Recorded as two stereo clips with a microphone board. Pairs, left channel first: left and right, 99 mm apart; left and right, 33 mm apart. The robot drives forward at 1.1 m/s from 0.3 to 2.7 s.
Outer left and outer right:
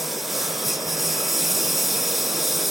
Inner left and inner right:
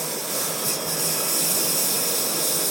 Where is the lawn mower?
Centre (ahead or behind).